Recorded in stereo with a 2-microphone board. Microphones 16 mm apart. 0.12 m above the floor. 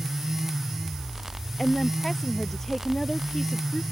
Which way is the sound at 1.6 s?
25° left (ahead or behind).